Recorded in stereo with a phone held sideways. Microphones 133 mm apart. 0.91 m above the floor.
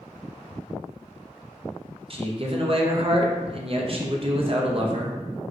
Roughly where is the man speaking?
Right.